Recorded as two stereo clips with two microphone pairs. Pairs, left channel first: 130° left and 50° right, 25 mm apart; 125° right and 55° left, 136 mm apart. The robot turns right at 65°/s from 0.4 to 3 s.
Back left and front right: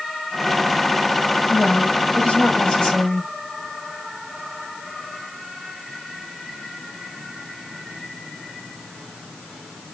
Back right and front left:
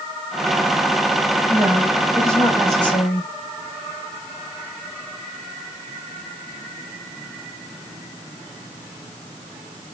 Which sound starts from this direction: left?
A woman speaking, at 1.5 s.